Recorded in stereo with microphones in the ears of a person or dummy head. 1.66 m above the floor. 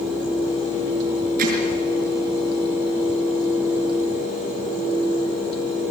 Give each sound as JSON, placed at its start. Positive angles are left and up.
{"t": 1.4, "sound": "hammering", "side_deg": -50, "distance_m": 6.0}